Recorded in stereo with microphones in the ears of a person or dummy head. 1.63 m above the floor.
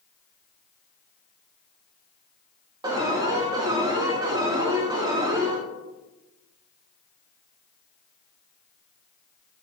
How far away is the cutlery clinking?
I don't hear cutlery clinking.